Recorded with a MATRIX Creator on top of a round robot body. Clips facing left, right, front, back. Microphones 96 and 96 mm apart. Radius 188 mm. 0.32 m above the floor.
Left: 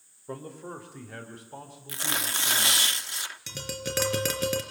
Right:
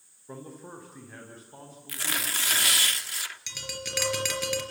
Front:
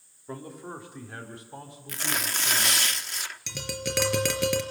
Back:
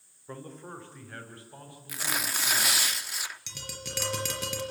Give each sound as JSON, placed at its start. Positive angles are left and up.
{"t": 0.3, "sound": "a man speaking", "azimuth_deg": 80, "distance_m": 3.0}
{"t": 1.9, "sound": "tearing paper", "azimuth_deg": 105, "distance_m": 1.5}
{"t": 3.5, "sound": "tapping", "azimuth_deg": 40, "distance_m": 3.5}